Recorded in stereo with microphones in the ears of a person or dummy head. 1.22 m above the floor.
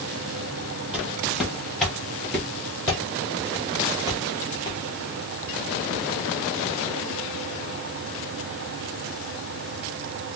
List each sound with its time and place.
0.9 s footsteps: 5° right (ahead or behind), 2.0 m; by 4.8 s 15° left (ahead or behind), 1.6 m